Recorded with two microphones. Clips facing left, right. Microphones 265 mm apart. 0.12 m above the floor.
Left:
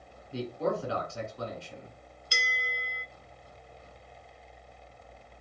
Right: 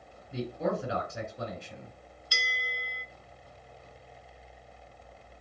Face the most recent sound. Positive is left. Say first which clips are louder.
# left 2 dB
turn(degrees=25)  # may be behind; listen again after turning